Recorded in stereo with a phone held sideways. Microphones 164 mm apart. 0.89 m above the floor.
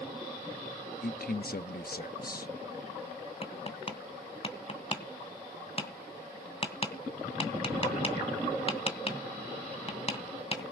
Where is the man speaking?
65° left (ahead or behind), 1.2 m.